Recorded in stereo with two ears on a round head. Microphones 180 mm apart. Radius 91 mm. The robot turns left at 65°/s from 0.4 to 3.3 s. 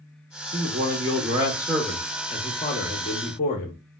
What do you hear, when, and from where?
0.5 s a man speaking: 80° right, 0.7 m; by 3.8 s 100° left, 0.7 m